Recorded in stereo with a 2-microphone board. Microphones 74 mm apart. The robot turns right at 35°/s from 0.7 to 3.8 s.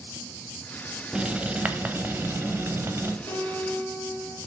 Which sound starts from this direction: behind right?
Writing, at 1.1 s.